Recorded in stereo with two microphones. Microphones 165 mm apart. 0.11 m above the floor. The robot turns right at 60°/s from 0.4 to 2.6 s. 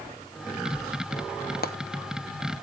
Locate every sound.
1.6 s frying: 75° left (ahead or behind), 0.8 m; by 1.7 s 70° left (ahead or behind), 0.8 m